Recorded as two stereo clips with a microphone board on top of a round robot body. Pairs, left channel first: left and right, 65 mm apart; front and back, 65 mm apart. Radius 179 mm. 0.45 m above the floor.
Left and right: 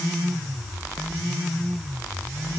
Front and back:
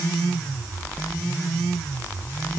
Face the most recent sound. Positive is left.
No sound to turn to.